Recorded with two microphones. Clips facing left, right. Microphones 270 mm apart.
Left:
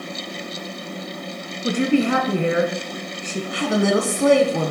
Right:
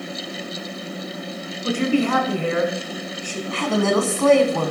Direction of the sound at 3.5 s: 15° left (ahead or behind).